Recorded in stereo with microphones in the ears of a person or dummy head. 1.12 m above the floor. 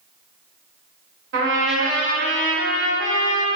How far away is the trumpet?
About 2 m.